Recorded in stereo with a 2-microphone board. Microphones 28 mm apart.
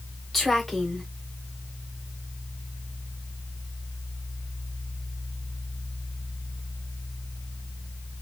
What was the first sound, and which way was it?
A woman speaking, 5° left (ahead or behind).